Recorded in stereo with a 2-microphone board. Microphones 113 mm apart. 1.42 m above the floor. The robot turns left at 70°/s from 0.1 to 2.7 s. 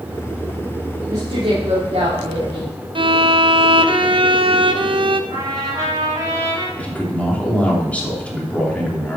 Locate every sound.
1.1 s a woman speaking: 30° right, 4 m; by 2.7 s 145° right, 4 m
3.0 s a violin: 50° right (ahead or behind), 0.8 m
5.3 s a trumpet: 35° right (ahead or behind), 5 m
6.8 s a man speaking: 15° left (ahead or behind), 3 m